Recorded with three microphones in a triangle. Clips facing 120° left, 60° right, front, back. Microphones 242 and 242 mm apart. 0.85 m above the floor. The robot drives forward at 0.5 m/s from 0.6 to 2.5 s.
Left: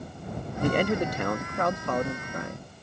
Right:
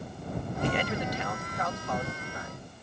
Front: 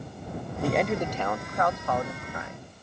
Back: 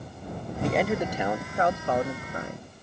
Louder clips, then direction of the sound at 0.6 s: Left 7 dB, even; 85° left.